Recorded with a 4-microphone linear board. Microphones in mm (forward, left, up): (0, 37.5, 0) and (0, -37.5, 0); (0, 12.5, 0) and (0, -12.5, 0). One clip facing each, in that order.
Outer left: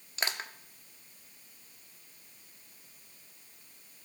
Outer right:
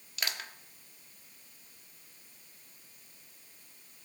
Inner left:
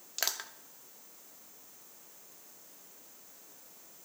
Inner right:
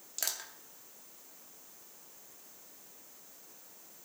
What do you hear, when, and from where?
0.2 s crushing: 30° left (ahead or behind), 0.8 m